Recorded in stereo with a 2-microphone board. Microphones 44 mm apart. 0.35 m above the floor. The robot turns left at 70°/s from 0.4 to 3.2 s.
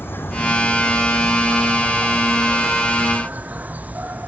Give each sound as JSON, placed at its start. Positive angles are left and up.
{"t": 0.0, "sound": "an insect", "azimuth_deg": 55}